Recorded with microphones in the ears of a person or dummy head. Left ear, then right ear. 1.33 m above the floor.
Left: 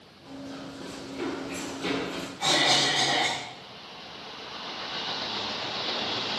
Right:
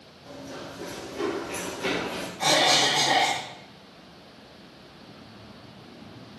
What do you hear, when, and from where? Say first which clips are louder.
0.2 s running footsteps: right 1 dB; centre (ahead or behind), 3 m; by 2.3 s 10° right (ahead or behind), 1.9 m
2.4 s a cough: right 2 dB; 45° right (ahead or behind), 2 m